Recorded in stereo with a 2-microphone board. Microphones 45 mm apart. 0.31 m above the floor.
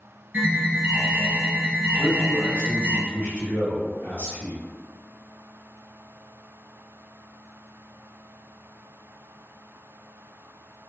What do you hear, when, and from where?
0.3 s an alarm: 30° right (ahead or behind), 1.6 m
2.0 s a man speaking: 35° left (ahead or behind), 1.4 m